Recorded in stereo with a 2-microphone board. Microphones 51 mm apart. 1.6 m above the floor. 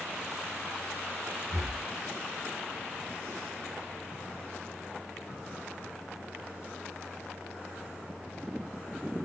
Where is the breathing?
Centre (ahead or behind), 1.0 m.